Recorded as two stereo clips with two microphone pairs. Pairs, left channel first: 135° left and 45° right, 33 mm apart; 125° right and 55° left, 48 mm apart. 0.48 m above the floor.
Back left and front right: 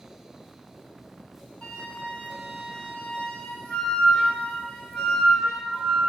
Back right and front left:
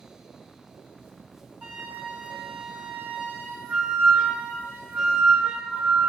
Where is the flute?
75° left, 1.4 m.